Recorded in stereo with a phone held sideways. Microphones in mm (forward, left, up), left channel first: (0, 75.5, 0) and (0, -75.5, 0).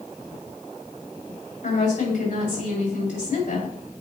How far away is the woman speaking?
About 3.5 m.